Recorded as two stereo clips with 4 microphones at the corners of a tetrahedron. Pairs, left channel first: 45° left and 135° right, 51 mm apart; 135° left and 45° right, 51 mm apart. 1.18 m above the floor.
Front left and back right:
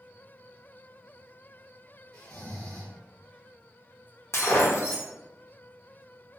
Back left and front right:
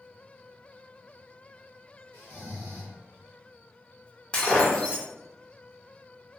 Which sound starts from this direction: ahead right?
Snoring, at 2.1 s.